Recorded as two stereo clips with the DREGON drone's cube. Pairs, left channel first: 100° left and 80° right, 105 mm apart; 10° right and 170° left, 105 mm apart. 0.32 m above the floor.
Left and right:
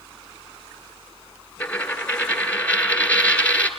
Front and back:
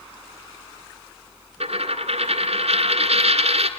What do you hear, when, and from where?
1.6 s a dropped coin: 175° left, 1.8 m